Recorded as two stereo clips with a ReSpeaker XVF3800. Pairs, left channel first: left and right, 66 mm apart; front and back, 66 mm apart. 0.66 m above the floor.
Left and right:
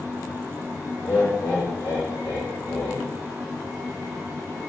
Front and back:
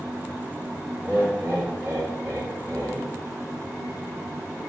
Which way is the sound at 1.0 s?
145° left.